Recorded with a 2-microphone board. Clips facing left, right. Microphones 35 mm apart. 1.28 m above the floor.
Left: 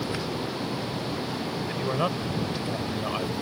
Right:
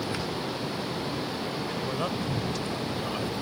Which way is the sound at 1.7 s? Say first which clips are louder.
Left 6 dB; 20° left (ahead or behind).